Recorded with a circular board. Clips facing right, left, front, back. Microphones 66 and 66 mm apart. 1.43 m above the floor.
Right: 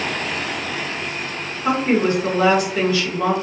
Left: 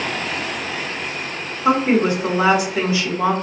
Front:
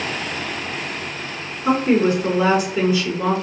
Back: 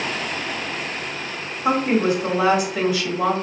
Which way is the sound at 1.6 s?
165° left.